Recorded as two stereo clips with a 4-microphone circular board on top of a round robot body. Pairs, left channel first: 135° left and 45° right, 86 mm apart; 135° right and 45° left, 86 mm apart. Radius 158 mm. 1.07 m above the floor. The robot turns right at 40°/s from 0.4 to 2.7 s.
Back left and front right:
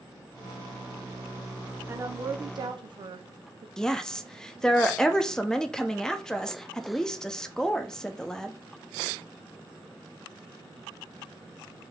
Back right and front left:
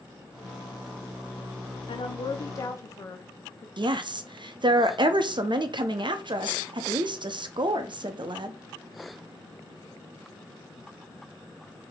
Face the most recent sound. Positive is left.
turn(degrees=55)